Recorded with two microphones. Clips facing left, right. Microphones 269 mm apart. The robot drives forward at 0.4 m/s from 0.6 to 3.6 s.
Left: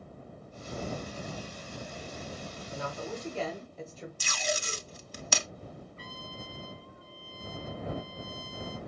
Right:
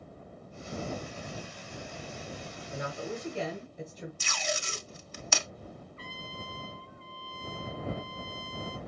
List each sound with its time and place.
2.7 s a woman speaking: 20° right (ahead or behind), 0.9 m; by 4.1 s 15° right (ahead or behind), 1.1 m
4.2 s tape being pulled: 45° left (ahead or behind), 0.6 m
6.0 s a trumpet: 40° left (ahead or behind), 4 m